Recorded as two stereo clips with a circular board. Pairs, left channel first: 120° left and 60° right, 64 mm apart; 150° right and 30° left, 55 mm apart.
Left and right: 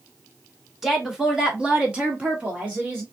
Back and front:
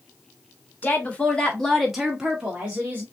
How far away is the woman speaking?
About 1.3 m.